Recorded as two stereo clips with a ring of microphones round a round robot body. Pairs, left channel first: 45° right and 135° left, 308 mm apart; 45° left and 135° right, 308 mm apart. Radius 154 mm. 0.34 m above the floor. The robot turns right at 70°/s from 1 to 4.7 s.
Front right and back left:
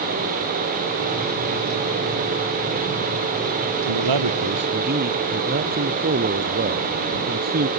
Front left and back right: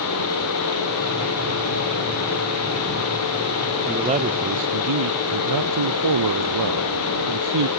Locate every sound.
3.9 s a man speaking: 135° left; by 7.7 s 165° right